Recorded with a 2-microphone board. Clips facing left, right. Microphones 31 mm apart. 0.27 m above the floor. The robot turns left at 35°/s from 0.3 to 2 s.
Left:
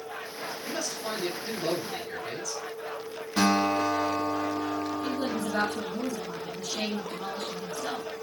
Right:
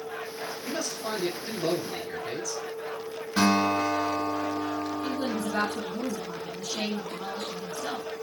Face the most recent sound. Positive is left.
turn(degrees=-20)  # may be behind; listen again after turning